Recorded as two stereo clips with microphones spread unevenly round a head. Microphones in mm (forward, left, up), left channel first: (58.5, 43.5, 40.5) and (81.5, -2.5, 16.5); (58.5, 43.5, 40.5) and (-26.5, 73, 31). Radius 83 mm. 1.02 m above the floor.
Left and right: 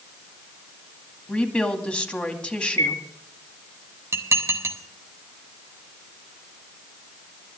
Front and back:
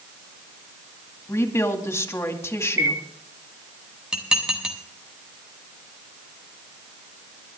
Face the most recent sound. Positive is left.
turn(degrees=-115)